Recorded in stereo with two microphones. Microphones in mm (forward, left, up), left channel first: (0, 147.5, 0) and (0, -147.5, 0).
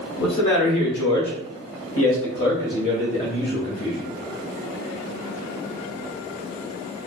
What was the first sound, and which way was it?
A man speaking, 65° left (ahead or behind).